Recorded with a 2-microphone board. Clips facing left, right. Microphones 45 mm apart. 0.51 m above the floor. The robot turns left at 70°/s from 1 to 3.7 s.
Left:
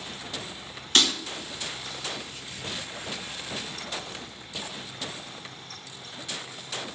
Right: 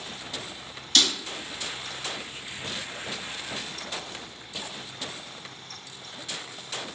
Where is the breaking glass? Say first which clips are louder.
Left 1 dB; 45° left (ahead or behind), 1.8 m; by 1.1 s 50° left (ahead or behind), 1.8 m.